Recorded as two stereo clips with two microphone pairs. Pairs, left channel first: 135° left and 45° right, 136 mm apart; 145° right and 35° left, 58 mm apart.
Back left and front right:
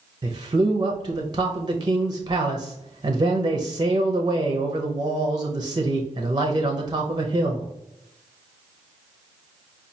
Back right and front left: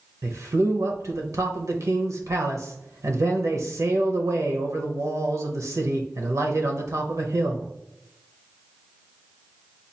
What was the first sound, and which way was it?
A man speaking, 10° left.